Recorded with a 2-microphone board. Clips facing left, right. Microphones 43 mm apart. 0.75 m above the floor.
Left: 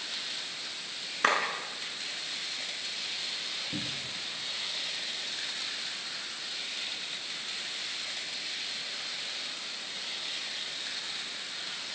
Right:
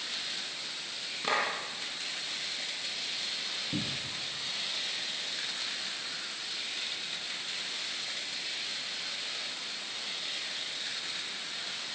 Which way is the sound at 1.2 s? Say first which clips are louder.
Left 4 dB; 65° left (ahead or behind).